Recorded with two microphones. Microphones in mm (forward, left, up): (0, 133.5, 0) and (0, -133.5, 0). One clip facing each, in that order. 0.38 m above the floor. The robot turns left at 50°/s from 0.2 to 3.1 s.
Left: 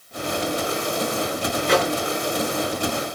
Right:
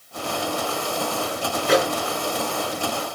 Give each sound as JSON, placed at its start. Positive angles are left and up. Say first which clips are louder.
{"t": 1.7, "sound": "a microwave", "louder": "right 1 dB", "side_deg": -5, "distance_m": 1.0}